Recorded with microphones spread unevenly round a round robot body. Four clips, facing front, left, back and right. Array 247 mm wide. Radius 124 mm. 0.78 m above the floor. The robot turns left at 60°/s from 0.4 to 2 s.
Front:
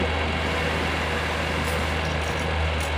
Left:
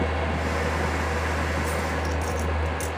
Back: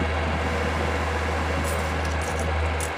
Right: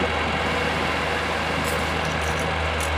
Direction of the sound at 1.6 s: 145° right.